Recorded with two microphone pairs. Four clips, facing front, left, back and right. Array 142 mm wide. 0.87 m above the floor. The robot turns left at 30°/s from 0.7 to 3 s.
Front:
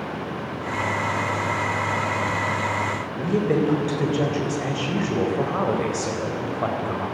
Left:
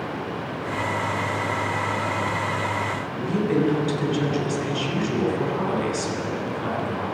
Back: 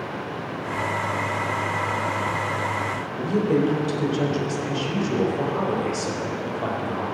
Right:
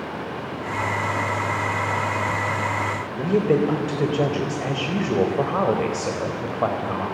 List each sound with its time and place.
3.2 s a woman speaking: 80° right, 4.5 m